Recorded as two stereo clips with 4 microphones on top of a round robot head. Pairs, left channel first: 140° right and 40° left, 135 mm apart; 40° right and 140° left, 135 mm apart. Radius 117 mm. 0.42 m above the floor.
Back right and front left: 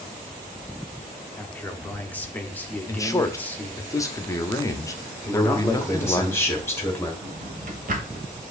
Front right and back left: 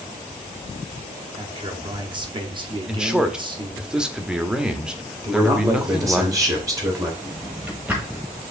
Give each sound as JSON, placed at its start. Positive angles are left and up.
{"t": 1.4, "sound": "a man speaking", "azimuth_deg": 150, "distance_m": 1.0}
{"t": 2.9, "sound": "a man speaking", "azimuth_deg": -145, "distance_m": 0.7}
{"t": 5.2, "sound": "a man speaking", "azimuth_deg": 170, "distance_m": 1.4}
{"t": 7.2, "sound": "a drawer", "azimuth_deg": 60, "distance_m": 1.0}